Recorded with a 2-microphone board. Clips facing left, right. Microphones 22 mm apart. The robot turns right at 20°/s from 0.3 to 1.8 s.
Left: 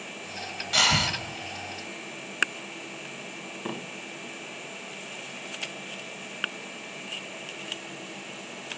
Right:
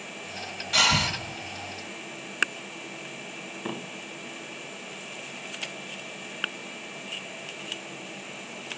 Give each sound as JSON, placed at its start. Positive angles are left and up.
{"t": 0.7, "sound": "breathing", "side_deg": 5, "distance_m": 1.0}